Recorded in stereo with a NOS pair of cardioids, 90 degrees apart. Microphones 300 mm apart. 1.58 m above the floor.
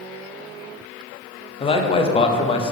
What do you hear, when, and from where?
1.6 s a man speaking: 20° left, 0.5 m